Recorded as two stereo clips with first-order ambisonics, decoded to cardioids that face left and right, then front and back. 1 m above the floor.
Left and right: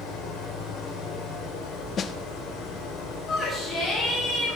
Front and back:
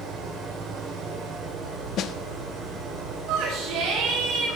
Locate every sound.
0.0 s an engine running: 120° left, 3.5 m
2.0 s a snare drum: 35° left, 0.5 m
3.3 s a shout: 150° left, 5 m